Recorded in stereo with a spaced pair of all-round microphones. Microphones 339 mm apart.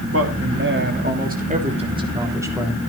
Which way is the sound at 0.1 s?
45° right (ahead or behind).